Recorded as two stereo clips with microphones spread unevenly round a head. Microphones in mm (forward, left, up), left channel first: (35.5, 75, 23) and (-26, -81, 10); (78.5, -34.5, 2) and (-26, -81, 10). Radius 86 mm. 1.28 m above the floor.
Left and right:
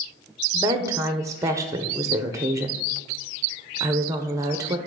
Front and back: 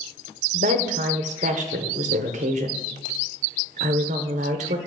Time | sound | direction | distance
0.5 | a woman speaking | straight behind | 0.7 m